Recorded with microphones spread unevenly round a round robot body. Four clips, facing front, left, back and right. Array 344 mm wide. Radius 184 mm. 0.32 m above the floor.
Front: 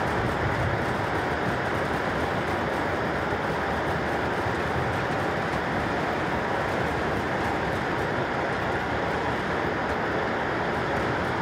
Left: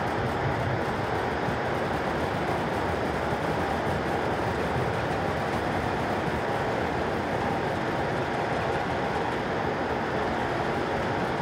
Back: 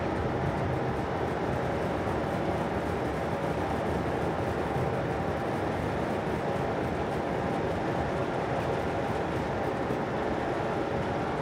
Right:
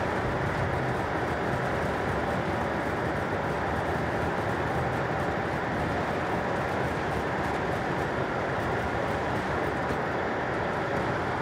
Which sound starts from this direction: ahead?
Running water, at 0.0 s.